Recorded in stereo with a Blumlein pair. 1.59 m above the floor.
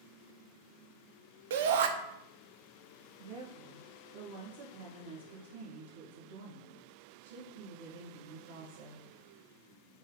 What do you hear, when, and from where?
1.5 s a shout: 55° right, 0.5 m
3.2 s a woman speaking: 65° right, 0.9 m